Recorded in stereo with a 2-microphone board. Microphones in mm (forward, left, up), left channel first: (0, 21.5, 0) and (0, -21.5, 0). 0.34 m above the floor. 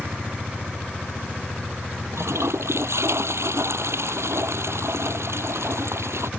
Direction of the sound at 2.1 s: 80° right.